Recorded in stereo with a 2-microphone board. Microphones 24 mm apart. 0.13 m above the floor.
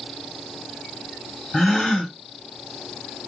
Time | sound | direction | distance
1.5 | a gasp | 10° left (ahead or behind) | 2.5 m